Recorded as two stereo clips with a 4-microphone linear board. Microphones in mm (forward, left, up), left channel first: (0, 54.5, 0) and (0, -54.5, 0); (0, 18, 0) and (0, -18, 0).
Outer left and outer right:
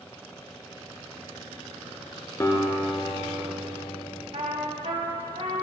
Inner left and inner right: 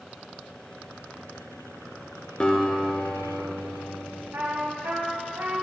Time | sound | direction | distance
2.4 | a guitar | 30° left (ahead or behind) | 1.1 m
4.3 | a trumpet | 70° right (ahead or behind) | 1.1 m